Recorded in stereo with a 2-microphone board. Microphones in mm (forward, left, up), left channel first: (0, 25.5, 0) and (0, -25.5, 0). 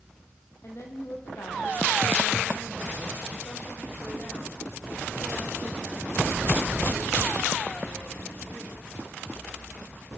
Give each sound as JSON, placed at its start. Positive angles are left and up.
{"t": 0.6, "sound": "a woman speaking", "side_deg": 60, "distance_m": 7.0}